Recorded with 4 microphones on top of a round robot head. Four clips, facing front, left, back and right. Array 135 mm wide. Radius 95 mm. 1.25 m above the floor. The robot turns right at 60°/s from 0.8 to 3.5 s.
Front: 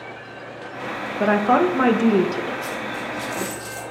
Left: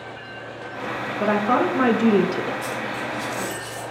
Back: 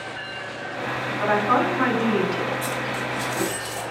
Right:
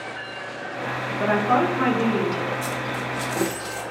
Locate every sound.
1.2 s a woman speaking: 15° right, 1.0 m; by 2.5 s 65° left, 1.0 m
2.6 s a dropped coin: 130° right, 0.7 m; by 3.8 s 75° right, 0.7 m